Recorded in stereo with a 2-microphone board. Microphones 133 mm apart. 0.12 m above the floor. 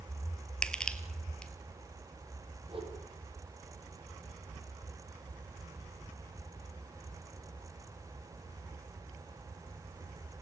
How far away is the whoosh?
About 5 m.